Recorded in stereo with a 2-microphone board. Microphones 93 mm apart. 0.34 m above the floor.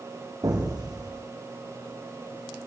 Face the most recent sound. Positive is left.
turn(degrees=-45)  # may be behind; listen again after turning